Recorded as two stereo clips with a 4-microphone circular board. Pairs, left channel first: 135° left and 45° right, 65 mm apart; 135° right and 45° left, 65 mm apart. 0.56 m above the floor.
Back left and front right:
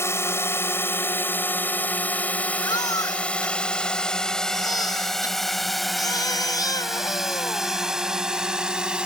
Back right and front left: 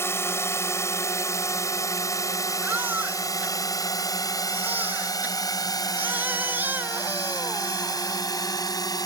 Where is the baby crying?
110° left.